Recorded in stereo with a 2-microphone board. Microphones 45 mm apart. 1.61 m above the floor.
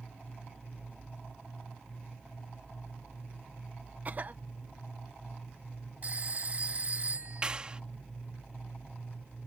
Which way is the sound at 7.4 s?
25° right (ahead or behind).